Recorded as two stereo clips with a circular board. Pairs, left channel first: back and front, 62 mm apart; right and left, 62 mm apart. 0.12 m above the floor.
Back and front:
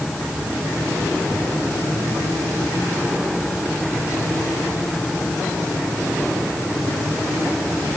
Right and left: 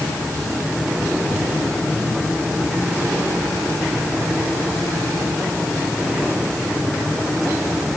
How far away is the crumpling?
No crumpling in this recording.